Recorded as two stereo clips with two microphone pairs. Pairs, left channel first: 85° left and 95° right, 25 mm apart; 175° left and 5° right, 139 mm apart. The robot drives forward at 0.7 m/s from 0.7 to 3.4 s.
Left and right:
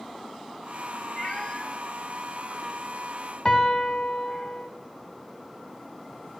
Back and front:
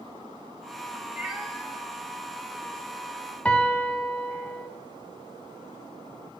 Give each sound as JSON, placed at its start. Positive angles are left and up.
{"t": 1.2, "sound": "a cat meowing", "azimuth_deg": 60, "distance_m": 0.7}
{"t": 3.5, "sound": "a piano", "azimuth_deg": 95, "distance_m": 0.6}